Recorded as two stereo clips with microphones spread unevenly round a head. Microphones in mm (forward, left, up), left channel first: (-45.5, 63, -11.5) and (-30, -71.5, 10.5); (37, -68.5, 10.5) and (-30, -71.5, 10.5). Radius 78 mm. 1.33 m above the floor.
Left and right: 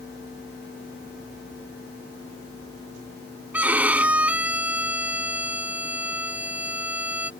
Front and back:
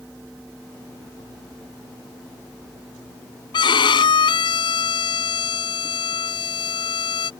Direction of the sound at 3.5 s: 5° right.